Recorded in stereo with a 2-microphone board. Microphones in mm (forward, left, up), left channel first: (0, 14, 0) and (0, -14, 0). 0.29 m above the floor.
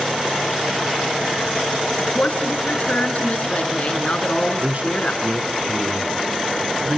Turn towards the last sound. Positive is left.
turn(degrees=-55)  # may be behind; listen again after turning